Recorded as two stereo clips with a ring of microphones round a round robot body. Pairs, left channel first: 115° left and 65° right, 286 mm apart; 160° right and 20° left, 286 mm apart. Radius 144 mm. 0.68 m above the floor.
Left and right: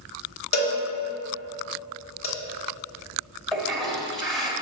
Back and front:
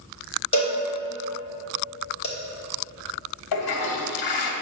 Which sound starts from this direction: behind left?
A cowbell, at 0.5 s.